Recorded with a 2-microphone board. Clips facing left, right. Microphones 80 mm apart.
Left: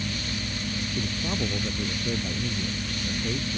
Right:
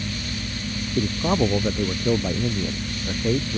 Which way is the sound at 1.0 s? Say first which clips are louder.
Right 11 dB; 50° right (ahead or behind).